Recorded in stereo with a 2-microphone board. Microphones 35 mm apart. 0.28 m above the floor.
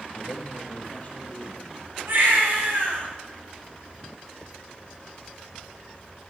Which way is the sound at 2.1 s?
80° right.